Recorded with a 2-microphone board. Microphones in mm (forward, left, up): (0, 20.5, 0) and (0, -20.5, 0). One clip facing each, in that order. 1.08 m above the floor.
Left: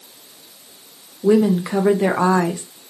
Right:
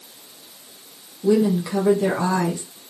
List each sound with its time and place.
1.2 s a woman speaking: 35° left (ahead or behind), 0.7 m